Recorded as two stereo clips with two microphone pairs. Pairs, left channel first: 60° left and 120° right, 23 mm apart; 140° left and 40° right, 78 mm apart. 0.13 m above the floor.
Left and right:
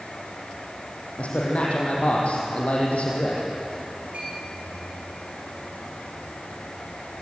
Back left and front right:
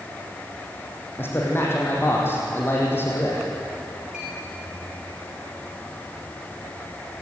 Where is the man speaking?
80° left, 5 m.